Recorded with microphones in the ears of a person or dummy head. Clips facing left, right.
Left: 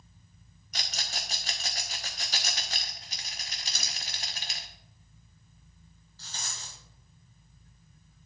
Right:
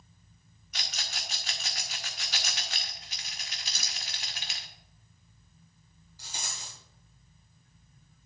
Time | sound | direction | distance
0.7 | a rattle | 35° left (ahead or behind) | 0.9 m
3.6 | crumpling | 60° left (ahead or behind) | 4 m
6.2 | a rattle | 15° right (ahead or behind) | 2.0 m